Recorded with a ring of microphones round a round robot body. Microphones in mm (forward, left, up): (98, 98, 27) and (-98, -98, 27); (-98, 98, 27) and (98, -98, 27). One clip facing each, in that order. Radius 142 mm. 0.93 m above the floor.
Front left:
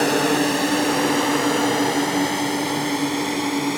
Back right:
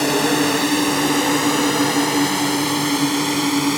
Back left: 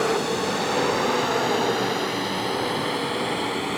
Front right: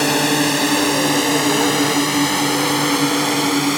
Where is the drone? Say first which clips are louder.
Back right 1 dB, front right 6 dB; 55° right; by 3.8 s 70° right.